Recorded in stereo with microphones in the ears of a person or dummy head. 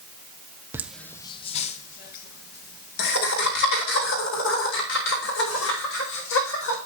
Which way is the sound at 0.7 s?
10° right (ahead or behind).